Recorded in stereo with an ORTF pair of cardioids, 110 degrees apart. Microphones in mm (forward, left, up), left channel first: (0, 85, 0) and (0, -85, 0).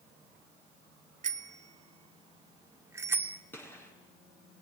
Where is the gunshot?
10° left, 6.5 m.